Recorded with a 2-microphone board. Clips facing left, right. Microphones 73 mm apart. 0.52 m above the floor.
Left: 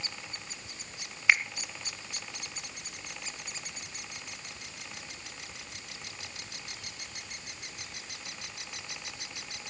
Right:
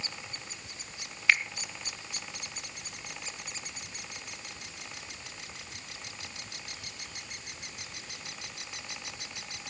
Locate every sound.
1.3 s a finger snap: 20° left (ahead or behind), 1.5 m